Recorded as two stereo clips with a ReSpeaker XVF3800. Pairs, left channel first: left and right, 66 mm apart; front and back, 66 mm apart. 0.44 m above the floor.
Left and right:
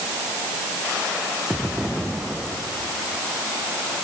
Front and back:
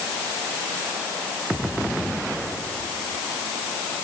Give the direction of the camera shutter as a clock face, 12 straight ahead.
No camera shutter in this recording.